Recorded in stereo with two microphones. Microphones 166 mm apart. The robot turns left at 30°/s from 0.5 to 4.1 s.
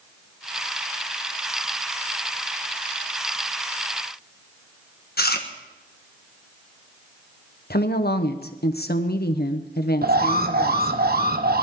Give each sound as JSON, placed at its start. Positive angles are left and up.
{"t": 5.2, "sound": "chewing", "side_deg": 70, "distance_m": 1.4}
{"t": 7.7, "sound": "a woman speaking", "side_deg": 75, "distance_m": 1.2}
{"t": 10.0, "sound": "an alarm", "side_deg": -70, "distance_m": 1.1}